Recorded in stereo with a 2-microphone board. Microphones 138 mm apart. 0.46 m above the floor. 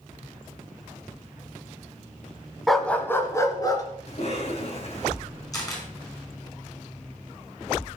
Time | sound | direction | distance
2.7 | a dog barking | centre (ahead or behind) | 1.1 m
4.1 | a cough | 50° left (ahead or behind) | 3.5 m
5.5 | a camera shutter | 25° left (ahead or behind) | 5 m